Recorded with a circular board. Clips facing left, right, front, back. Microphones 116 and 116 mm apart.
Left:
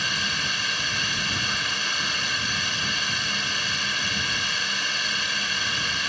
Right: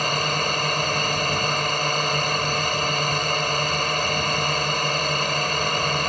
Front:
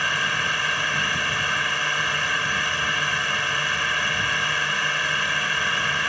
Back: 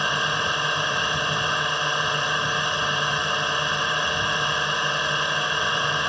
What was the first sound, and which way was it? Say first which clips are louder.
A drone: right 8 dB, back 2 dB; 115° right.